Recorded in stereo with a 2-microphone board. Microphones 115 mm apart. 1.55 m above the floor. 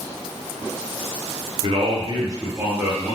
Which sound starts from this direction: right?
A man speaking, at 1.6 s.